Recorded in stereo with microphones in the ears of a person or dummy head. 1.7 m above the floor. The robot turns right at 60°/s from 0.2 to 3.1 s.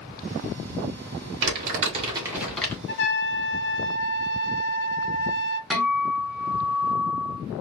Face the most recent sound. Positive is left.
turn(degrees=5)  # may be behind; listen again after turning